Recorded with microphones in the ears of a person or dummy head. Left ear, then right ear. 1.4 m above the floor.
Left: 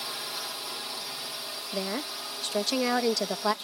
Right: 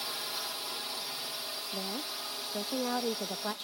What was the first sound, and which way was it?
A drone, 5° right (ahead or behind).